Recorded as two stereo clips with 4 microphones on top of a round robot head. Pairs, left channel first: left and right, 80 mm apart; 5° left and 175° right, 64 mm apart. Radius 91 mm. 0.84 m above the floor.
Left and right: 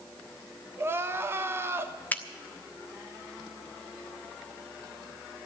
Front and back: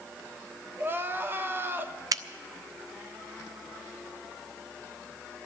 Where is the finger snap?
160° left, 0.8 m.